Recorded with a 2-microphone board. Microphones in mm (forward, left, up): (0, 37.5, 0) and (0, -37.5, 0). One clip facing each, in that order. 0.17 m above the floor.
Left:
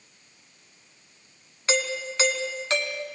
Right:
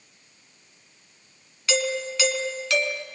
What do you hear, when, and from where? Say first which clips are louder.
1.7 s a doorbell: right 2 dB; 35° left (ahead or behind), 1.8 m